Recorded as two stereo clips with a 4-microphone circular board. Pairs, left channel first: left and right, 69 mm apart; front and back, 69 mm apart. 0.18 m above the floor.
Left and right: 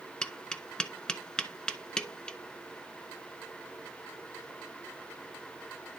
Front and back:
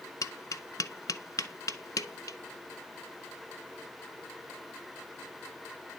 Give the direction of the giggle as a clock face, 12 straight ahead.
I don't hear a giggle.